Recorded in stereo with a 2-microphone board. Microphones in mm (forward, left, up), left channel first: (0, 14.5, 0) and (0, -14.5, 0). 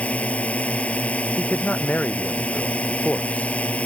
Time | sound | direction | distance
0.0 | a drone | 55° left (ahead or behind) | ?
1.4 | a man speaking | 55° left (ahead or behind) | ?